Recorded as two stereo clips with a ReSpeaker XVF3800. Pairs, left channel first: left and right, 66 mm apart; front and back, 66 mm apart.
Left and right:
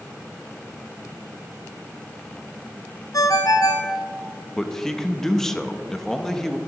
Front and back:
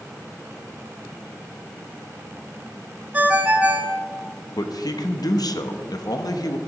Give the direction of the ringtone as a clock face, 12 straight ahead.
8 o'clock.